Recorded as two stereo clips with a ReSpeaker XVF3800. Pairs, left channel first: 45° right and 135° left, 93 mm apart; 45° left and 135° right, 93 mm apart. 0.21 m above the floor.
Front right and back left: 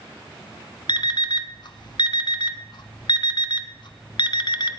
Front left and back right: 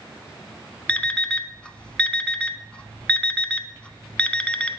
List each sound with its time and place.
0.9 s an alarm clock: 30° right, 0.8 m